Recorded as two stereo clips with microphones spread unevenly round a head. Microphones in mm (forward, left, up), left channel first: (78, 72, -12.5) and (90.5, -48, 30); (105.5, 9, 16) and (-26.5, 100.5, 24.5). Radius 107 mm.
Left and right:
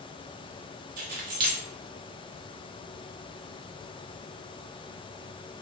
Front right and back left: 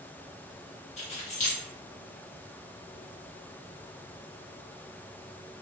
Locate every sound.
1.0 s keys jangling: 95° right, 0.6 m